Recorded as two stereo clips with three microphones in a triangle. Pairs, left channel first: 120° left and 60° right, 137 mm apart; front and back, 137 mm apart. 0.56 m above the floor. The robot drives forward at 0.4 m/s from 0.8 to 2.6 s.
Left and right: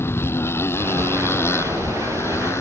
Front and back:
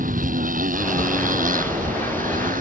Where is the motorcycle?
165° right; by 2.6 s 170° right.